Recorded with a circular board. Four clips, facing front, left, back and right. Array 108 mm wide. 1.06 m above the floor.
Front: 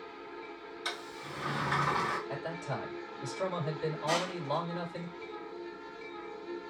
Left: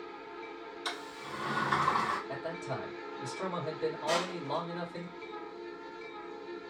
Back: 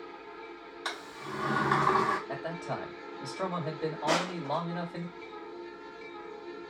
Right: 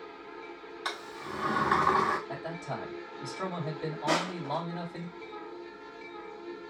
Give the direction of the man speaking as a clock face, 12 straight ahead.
5 o'clock.